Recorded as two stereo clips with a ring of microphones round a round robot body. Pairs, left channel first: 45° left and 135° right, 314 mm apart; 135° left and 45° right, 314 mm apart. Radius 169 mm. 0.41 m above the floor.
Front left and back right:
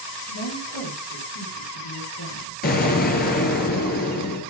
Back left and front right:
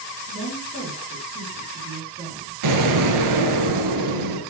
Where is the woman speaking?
20° left, 6.5 m.